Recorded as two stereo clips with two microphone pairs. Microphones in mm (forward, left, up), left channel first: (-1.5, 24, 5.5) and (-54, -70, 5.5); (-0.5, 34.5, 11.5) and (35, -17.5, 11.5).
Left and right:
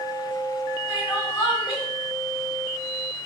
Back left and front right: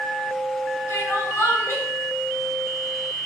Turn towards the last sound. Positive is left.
turn(degrees=90)